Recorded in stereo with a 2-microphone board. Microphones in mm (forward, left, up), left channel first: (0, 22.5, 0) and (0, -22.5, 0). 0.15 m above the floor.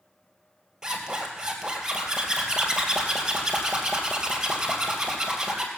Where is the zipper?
15° right (ahead or behind), 2.5 m.